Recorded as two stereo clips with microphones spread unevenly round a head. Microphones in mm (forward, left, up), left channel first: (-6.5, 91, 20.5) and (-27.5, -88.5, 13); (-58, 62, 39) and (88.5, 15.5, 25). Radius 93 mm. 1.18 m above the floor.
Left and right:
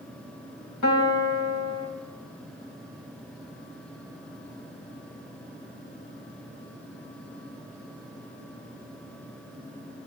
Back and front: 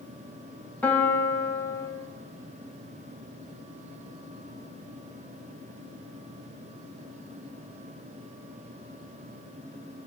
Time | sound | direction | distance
0.8 | a piano | 85° left | 5 m